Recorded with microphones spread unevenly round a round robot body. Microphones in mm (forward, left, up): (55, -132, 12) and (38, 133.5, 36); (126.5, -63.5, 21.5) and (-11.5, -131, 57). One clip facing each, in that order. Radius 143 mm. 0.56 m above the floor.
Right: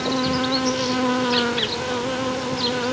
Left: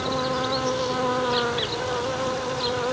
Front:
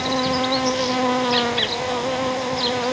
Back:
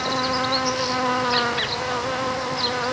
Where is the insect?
40° right.